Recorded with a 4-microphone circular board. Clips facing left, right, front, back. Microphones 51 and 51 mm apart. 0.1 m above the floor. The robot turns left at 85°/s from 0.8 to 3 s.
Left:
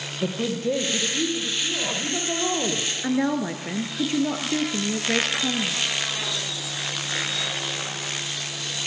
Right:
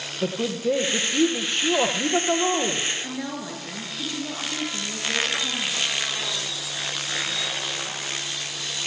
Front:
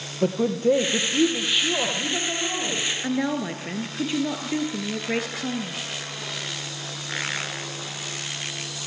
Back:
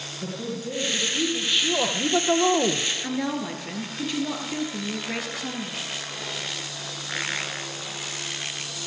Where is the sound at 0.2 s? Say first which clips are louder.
Right 1 dB, front 11 dB; 15° right, 2.5 m; by 2.9 s 170° left, 2.5 m.